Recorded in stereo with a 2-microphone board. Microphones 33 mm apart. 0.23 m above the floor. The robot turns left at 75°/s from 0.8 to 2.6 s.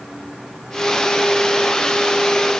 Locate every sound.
Only background noise.